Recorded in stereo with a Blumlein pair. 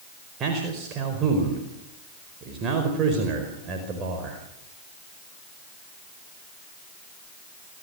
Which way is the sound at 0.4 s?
30° right.